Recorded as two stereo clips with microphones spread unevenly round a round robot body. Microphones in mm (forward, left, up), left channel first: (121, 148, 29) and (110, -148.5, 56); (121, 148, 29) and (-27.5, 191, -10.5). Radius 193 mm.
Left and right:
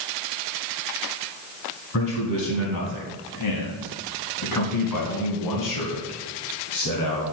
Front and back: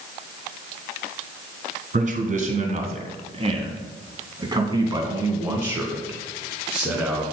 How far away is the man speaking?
About 3 m.